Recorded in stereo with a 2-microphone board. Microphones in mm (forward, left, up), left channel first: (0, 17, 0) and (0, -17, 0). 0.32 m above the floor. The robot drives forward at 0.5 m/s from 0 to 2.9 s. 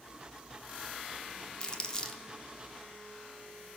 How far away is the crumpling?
About 0.5 m.